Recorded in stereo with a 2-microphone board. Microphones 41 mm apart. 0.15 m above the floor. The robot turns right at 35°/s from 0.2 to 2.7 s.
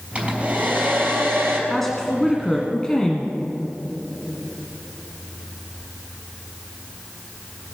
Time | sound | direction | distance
0.1 | a hair dryer | 150° right | 3.5 m
1.7 | a woman speaking | 5° left (ahead or behind) | 1.3 m